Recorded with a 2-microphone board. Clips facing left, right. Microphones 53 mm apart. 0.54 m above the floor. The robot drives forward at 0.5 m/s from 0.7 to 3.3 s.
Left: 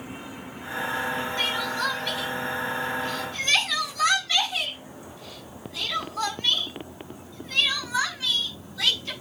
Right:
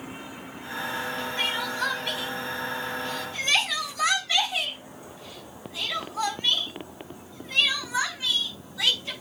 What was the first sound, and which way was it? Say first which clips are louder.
Crying: right 2 dB; 15° right (ahead or behind).